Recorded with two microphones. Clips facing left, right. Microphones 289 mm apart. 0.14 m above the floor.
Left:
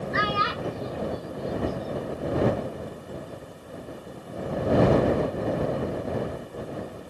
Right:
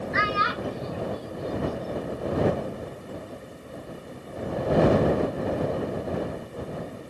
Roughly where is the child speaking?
Left.